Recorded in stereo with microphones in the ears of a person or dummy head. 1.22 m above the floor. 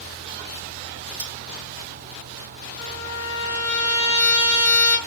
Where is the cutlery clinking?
35° right (ahead or behind), 1.7 m.